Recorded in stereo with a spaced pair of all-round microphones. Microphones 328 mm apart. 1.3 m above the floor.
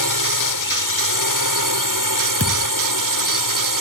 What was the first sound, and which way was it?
A drone, 70° right (ahead or behind).